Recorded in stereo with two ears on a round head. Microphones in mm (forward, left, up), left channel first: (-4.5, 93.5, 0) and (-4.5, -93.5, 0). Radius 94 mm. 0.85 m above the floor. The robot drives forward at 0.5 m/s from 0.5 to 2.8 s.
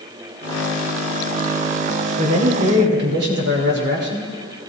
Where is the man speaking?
60° right (ahead or behind), 2.5 m; by 4.3 s 55° right (ahead or behind), 2.5 m.